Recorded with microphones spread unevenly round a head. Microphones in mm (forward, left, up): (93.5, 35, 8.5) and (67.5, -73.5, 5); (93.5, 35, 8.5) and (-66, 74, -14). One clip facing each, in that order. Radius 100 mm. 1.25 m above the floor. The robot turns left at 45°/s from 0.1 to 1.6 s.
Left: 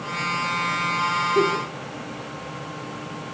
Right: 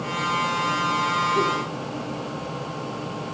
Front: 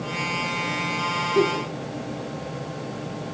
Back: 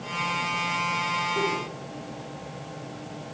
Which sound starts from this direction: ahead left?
A giggle, at 1.4 s.